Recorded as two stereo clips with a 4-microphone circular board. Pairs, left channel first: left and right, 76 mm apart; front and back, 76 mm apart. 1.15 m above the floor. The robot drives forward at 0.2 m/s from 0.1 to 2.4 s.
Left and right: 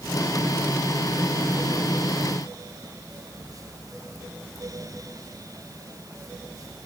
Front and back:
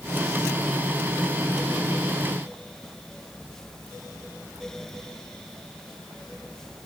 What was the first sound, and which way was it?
Only background noise.